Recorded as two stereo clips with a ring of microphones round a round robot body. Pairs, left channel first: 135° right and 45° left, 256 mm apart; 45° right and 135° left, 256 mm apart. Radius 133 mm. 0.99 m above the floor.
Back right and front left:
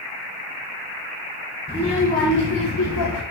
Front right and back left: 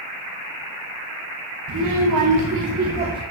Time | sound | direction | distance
1.7 | a child speaking | 155° left | 1.4 m